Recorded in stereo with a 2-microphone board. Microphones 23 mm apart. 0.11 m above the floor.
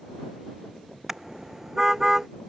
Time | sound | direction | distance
1.1 | a car horn | 20° right (ahead or behind) | ?